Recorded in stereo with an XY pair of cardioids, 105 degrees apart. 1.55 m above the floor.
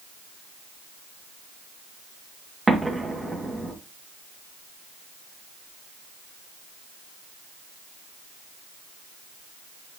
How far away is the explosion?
About 2 m.